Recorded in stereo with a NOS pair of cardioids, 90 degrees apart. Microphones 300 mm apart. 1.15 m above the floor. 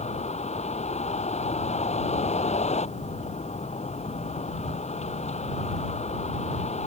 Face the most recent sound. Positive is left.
turn(degrees=20)